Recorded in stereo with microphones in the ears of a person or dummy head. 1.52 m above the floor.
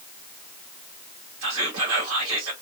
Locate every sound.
1.4 s whispering: 80° right, 1.6 m